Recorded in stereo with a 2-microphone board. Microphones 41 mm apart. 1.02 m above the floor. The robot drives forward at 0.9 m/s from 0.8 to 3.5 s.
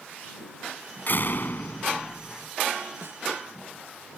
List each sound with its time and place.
1.1 s a door slam: 55° left (ahead or behind); by 2.5 s 45° left (ahead or behind)
3.0 s a snare drum: 65° right (ahead or behind)